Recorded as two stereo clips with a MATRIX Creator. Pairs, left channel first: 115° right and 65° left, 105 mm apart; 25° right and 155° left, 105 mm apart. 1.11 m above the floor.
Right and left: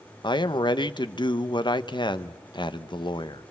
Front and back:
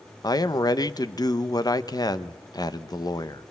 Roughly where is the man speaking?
Right.